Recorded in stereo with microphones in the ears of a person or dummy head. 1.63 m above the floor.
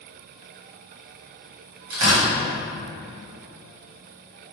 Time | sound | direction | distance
1.9 | tearing paper | 65° right (ahead or behind) | 1.7 m